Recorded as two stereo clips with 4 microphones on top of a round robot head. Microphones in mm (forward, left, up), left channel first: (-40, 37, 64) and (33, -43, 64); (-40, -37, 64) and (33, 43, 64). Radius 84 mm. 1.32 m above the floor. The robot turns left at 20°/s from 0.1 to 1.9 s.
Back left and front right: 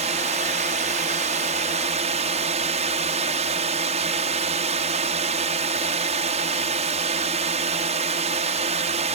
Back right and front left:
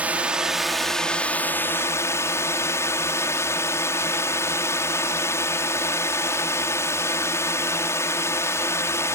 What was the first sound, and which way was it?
A drone, 30° right.